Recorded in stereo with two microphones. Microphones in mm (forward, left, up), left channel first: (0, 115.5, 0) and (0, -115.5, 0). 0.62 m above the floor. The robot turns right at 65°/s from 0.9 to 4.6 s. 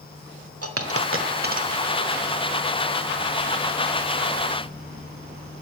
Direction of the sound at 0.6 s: 80° right.